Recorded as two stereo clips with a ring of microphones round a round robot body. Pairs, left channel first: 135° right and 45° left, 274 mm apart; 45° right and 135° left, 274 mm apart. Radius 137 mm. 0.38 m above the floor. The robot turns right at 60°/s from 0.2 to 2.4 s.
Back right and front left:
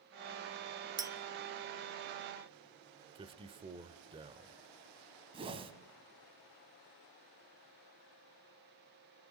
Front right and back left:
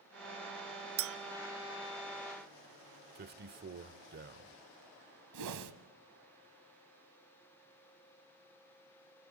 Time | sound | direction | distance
1.0 | a clink | 115° left | 0.7 m
3.1 | a man speaking | 105° left | 1.2 m
5.3 | a whoosh | 115° left | 1.8 m